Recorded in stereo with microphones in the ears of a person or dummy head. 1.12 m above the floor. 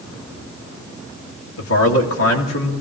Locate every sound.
1.6 s a man speaking: 70° left (ahead or behind), 2 m